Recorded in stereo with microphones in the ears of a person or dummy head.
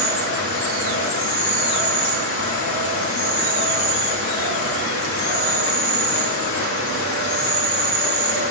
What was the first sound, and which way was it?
An insect, 65° left (ahead or behind).